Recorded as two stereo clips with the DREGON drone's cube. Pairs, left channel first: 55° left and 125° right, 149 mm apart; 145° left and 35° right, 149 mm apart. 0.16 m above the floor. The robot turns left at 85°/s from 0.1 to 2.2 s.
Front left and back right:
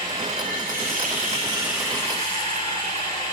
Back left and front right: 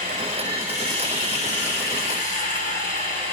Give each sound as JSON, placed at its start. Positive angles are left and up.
{"t": 0.0, "sound": "running water", "azimuth_deg": -65, "distance_m": 7.5}